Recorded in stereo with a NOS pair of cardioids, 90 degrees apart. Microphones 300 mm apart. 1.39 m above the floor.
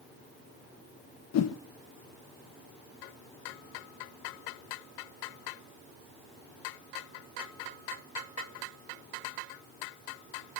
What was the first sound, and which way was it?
A whoosh, 60° left.